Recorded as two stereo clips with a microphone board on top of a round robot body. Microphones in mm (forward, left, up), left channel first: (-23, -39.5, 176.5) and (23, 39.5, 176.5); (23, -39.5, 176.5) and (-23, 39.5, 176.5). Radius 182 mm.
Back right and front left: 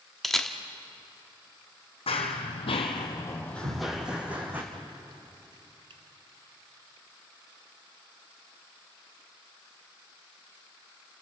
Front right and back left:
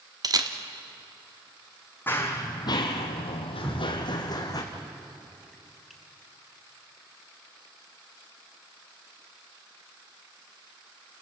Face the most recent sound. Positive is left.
turn(degrees=30)